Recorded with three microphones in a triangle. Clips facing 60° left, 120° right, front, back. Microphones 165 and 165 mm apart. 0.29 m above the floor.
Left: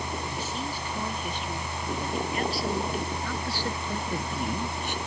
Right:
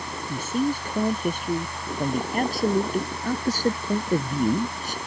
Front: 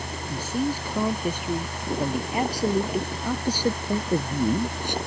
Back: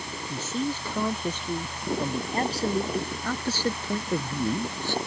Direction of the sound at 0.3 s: 80° right.